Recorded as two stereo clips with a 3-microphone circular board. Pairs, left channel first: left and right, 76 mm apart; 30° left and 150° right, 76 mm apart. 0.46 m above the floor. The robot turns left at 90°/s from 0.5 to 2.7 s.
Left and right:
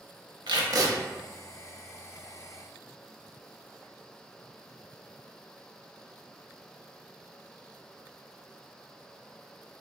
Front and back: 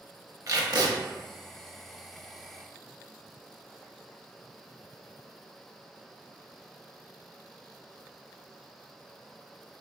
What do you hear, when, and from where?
0.5 s tape being pulled: 105° right, 0.7 m; by 0.9 s 145° right, 0.7 m